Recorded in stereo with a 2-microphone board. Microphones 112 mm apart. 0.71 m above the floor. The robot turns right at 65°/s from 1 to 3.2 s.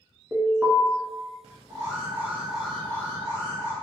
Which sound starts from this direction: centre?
An alarm, at 0.3 s.